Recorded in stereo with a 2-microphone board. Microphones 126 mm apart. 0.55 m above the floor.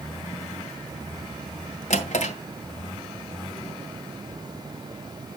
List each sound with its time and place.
1.9 s a drawer: 75° left (ahead or behind), 2 m